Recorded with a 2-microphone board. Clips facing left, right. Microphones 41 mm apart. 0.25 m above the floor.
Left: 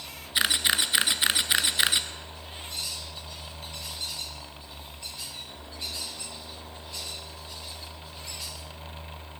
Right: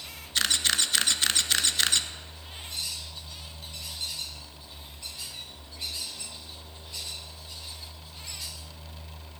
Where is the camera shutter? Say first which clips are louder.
Left 2 dB; 15° left (ahead or behind), 0.7 m.